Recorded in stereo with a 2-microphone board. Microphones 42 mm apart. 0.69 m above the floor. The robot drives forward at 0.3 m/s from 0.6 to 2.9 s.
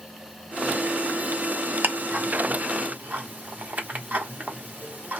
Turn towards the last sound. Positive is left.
turn(degrees=-45)  # may be behind; listen again after turning